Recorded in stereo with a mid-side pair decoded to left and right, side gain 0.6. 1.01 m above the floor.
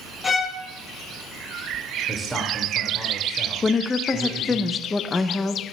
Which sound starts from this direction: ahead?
A man speaking, at 2.1 s.